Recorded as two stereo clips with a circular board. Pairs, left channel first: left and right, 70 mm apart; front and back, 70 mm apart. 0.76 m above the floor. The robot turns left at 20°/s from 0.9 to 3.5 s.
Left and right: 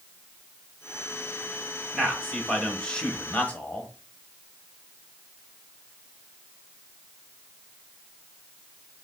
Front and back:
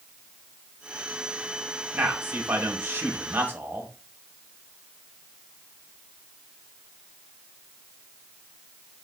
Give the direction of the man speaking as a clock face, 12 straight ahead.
6 o'clock.